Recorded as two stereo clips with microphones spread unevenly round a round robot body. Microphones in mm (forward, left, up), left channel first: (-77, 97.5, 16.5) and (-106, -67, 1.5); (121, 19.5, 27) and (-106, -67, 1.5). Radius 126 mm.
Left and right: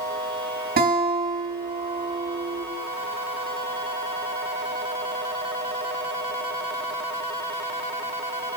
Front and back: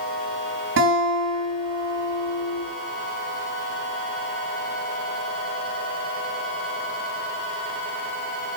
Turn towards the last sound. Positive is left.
turn(degrees=-125)